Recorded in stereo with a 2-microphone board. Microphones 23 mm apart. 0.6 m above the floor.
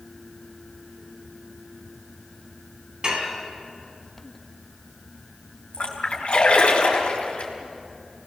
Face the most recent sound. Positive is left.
turn(degrees=55)  # may be behind; listen again after turning